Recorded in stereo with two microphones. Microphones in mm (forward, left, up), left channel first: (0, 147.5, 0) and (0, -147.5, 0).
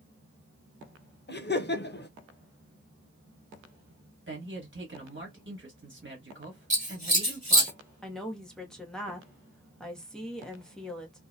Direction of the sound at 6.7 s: 25° right (ahead or behind).